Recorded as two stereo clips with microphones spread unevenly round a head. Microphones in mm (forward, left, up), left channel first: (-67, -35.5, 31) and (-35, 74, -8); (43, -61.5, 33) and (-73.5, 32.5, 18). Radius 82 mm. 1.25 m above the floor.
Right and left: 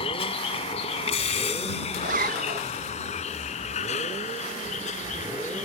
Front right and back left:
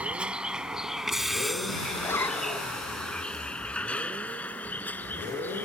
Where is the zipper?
35° left.